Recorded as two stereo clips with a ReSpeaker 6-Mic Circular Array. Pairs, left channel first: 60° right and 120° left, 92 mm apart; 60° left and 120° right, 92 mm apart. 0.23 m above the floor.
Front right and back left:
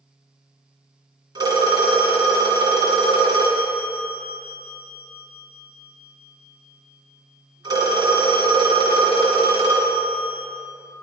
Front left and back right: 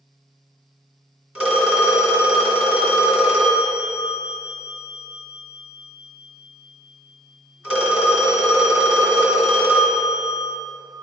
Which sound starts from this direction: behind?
A phone ringing, at 1.4 s.